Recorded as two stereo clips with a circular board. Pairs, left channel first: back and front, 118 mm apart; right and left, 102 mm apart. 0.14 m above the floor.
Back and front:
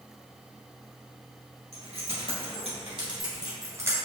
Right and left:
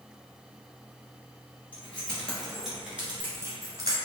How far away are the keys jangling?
About 1.7 m.